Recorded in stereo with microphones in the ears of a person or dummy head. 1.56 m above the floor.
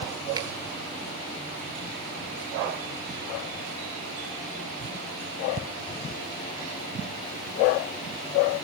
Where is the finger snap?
25° right (ahead or behind), 1.8 m.